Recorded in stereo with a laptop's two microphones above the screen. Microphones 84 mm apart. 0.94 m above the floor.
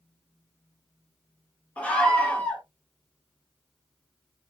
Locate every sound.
1.8 s a scream: 15° left (ahead or behind), 0.9 m